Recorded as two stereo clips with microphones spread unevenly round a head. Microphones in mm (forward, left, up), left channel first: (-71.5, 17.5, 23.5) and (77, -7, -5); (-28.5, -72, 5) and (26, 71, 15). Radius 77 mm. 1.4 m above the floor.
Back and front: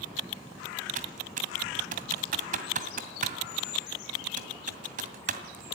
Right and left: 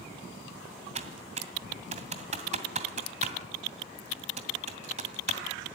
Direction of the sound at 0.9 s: 30° left.